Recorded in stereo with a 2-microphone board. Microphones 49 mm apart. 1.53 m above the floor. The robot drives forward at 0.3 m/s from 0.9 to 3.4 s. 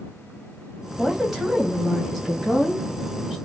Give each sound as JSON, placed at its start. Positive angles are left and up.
{"t": 1.0, "sound": "a woman speaking", "side_deg": -10, "distance_m": 1.6}